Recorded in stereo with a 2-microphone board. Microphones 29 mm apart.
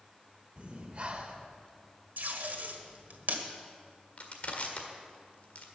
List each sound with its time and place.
0.6 s breathing: 40° right (ahead or behind), 1.3 m
2.2 s tape being pulled: 85° right, 1.5 m
4.2 s crushing: 45° left (ahead or behind), 1.7 m